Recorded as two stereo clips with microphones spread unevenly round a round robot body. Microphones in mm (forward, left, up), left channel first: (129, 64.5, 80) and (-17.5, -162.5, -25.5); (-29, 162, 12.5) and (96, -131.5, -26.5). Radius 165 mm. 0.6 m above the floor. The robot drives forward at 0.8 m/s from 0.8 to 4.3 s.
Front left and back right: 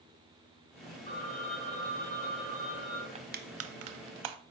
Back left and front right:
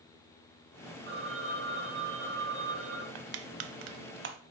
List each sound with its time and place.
1.1 s a phone ringing: 10° right, 4 m; by 3.0 s 20° right, 2.5 m
3.1 s crushing: 45° right, 0.8 m; by 4.4 s 130° right, 0.7 m